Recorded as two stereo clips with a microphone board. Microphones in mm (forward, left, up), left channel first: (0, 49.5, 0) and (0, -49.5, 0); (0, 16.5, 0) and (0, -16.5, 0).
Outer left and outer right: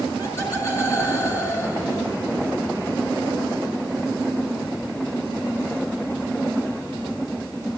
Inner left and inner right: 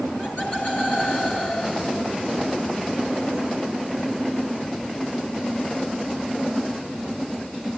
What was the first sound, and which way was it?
Laughter, 30° left (ahead or behind).